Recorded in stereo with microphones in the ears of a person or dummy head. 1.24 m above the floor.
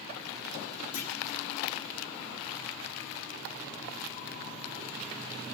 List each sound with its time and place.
0.9 s a clunk: 65° left (ahead or behind), 1.2 m